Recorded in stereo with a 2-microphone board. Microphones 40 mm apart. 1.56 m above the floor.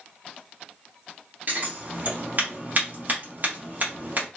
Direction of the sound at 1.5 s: 45° right (ahead or behind).